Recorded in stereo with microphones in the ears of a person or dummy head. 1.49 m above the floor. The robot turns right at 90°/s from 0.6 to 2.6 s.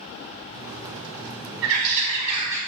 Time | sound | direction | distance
1.6 | a bird | 100° right | 2 m